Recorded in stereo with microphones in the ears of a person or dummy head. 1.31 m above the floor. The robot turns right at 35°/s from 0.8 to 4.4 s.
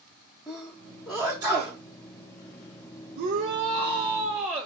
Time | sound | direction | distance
0.5 | a sneeze | 15° left (ahead or behind) | 0.9 m
3.2 | a shout | 50° right | 0.7 m